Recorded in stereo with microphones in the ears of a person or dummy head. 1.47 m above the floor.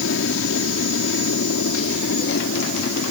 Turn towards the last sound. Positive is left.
turn(degrees=70)  # may be behind; listen again after turning